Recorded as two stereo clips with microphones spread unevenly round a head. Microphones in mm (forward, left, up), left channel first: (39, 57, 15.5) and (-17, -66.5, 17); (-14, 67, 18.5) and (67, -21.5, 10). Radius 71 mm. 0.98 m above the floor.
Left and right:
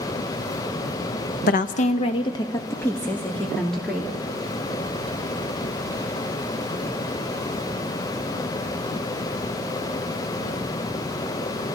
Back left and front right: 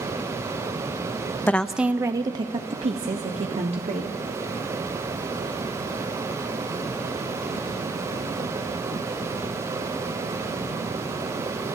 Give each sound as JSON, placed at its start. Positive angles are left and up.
{"t": 1.5, "sound": "a woman speaking", "azimuth_deg": 55, "distance_m": 0.7}